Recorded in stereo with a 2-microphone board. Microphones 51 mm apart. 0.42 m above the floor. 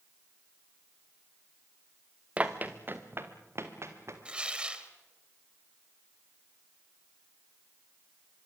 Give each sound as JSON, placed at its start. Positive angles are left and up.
{"t": 2.4, "sound": "running footsteps", "side_deg": -25, "distance_m": 1.7}
{"t": 4.2, "sound": "tearing paper", "side_deg": -20, "distance_m": 2.0}